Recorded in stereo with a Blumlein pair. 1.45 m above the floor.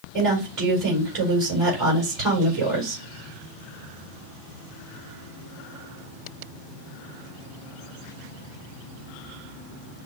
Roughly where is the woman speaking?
Ahead right.